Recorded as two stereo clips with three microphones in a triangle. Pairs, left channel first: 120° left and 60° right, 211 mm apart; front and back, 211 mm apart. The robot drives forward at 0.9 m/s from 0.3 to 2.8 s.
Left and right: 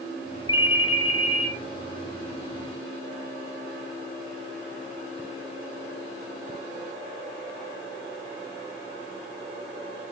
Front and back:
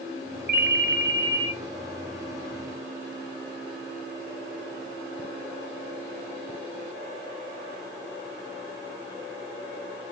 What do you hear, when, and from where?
0.5 s a ringtone: 175° right, 0.7 m; by 1.5 s straight behind, 1.5 m